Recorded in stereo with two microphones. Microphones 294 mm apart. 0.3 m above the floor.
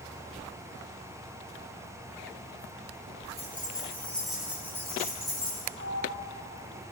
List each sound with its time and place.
3.4 s keys jangling: 20° left (ahead or behind), 3.5 m; by 5.6 s 15° right (ahead or behind), 6 m
5.7 s a sliding door: 75° right (ahead or behind), 4 m